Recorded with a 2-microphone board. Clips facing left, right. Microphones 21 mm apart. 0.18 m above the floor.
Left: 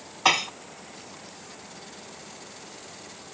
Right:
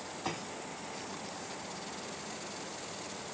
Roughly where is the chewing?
I don't hear chewing.